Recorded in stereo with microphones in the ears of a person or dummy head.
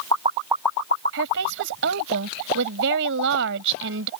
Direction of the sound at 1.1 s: 65° right (ahead or behind).